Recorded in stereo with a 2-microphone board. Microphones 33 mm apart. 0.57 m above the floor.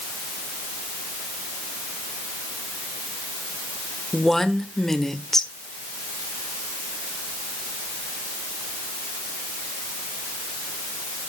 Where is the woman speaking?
10° left (ahead or behind), 1.6 m.